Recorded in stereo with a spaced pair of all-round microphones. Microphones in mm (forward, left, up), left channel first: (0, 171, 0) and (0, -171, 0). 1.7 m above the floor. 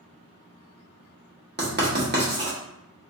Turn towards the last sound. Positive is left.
turn(degrees=-30)  # may be behind; listen again after turning